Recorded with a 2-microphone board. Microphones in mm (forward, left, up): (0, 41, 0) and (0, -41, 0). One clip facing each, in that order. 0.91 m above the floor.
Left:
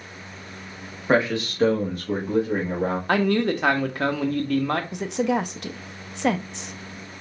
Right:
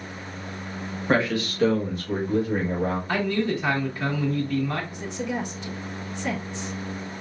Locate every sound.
1.1 s a man speaking: 15° left (ahead or behind), 1.3 m; by 3.0 s 70° left (ahead or behind), 2.0 m
3.1 s a man speaking: 65° left (ahead or behind), 1.0 m
4.9 s a woman speaking: 70° left (ahead or behind), 0.6 m